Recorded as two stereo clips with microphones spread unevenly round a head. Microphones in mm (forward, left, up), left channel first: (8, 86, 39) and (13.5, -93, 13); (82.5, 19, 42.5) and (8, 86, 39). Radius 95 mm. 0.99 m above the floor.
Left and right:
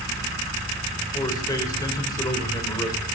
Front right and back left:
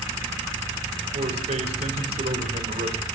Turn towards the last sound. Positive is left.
turn(degrees=165)